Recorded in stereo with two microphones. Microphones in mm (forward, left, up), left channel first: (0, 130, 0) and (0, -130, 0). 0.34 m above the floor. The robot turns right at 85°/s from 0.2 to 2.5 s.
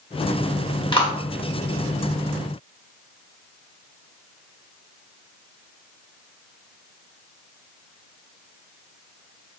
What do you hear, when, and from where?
0.9 s a clap: 20° left (ahead or behind), 0.7 m; by 1.1 s 25° left (ahead or behind), 0.7 m